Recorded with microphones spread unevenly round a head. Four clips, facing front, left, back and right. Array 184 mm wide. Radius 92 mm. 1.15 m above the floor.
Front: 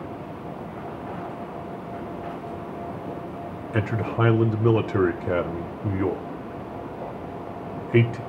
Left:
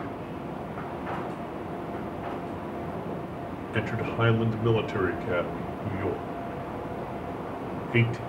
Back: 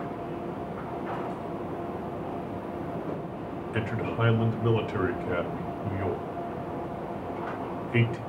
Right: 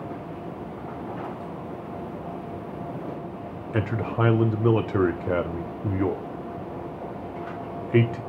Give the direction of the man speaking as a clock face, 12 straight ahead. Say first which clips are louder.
Right 3 dB, front 5 dB; 2 o'clock.